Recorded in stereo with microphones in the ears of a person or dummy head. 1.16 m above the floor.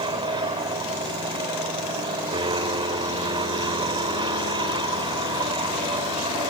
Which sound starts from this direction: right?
An aircraft, at 0.0 s.